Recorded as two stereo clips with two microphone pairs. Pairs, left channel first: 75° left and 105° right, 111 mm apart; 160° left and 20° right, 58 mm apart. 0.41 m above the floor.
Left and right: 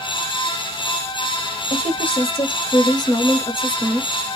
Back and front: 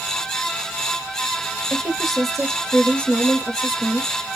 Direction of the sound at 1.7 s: 65° left.